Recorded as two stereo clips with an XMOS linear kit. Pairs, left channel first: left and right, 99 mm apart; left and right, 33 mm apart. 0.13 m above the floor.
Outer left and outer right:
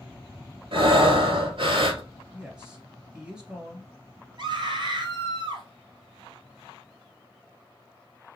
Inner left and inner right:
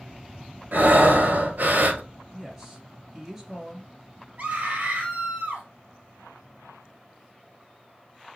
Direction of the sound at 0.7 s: 65° right (ahead or behind).